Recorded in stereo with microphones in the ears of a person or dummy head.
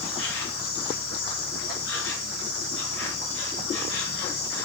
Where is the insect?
80° left, 5 m.